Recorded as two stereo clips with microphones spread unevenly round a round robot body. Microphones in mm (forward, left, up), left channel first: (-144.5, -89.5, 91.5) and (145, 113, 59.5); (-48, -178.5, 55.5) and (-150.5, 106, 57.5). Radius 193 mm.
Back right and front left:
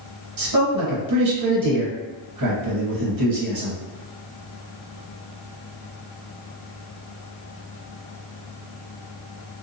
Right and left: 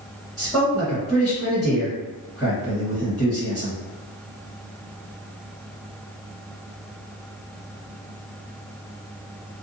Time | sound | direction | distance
0.4 | a man speaking | 15° left | 1.5 m